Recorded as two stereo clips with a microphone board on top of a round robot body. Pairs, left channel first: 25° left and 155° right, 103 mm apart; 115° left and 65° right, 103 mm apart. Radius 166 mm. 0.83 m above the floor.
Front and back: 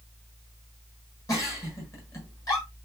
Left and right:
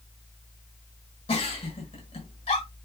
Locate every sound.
1.3 s a giggle: 85° left, 7 m